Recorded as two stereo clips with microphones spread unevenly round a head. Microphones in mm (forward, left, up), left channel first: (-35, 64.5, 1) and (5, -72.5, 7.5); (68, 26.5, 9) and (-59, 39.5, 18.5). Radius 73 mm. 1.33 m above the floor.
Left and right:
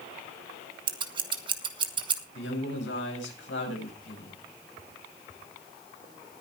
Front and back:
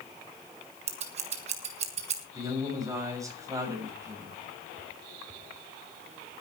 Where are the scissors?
135° right, 2.0 m.